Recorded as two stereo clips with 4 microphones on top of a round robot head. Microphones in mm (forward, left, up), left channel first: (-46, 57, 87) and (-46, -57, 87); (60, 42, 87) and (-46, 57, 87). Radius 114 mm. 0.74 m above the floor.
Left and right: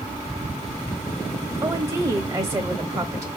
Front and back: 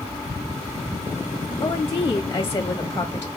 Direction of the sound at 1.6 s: 55° right.